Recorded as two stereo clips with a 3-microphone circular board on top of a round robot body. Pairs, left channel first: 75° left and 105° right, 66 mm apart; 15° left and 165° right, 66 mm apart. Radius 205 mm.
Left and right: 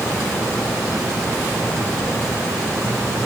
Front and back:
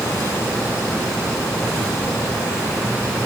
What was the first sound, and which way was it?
Only background noise.